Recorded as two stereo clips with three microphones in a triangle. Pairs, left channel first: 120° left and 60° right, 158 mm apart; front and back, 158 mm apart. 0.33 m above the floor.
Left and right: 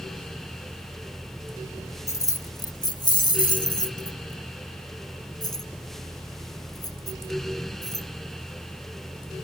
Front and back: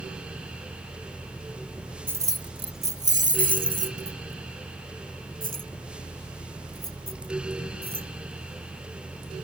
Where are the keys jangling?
130° left; by 8.1 s 175° right.